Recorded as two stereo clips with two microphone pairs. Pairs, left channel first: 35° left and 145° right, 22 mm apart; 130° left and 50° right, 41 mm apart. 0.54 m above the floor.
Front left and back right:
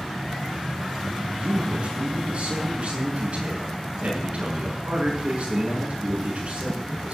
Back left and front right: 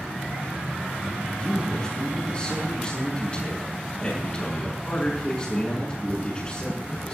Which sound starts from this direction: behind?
A man speaking, at 1.4 s.